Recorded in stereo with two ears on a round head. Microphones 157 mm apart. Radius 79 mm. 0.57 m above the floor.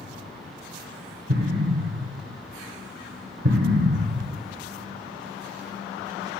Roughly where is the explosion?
Right.